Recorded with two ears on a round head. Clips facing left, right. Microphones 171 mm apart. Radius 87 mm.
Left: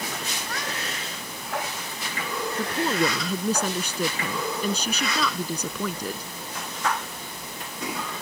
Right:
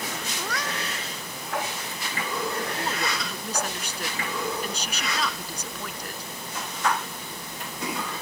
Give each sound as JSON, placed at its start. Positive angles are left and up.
{"t": 0.4, "sound": "a cat meowing", "side_deg": -60}
{"t": 2.6, "sound": "a woman speaking", "side_deg": 90}